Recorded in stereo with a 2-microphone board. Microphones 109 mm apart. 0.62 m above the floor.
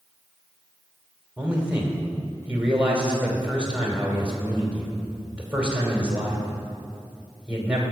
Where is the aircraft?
No aircraft in this recording.